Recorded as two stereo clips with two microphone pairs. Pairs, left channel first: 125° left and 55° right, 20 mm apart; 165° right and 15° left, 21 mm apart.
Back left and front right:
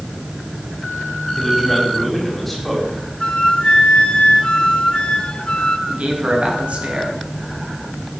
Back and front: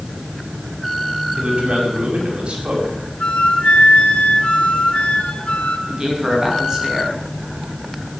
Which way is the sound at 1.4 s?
40° left.